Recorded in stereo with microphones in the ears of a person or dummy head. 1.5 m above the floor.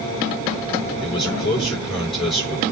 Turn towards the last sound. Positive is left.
turn(degrees=25)  # may be behind; listen again after turning